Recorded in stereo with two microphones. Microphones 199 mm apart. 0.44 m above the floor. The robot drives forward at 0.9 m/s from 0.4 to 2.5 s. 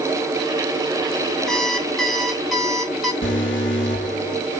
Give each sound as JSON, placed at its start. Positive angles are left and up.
{"t": 1.5, "sound": "an alarm clock", "side_deg": 5, "distance_m": 0.9}
{"t": 3.2, "sound": "an alarm", "side_deg": 80, "distance_m": 7.0}